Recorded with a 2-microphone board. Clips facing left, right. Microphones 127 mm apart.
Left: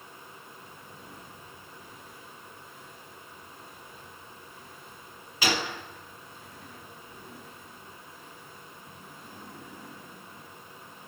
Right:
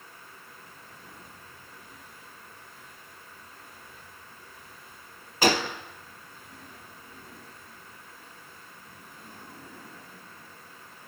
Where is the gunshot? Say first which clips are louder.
Right 5 dB; 45° right (ahead or behind), 0.6 m.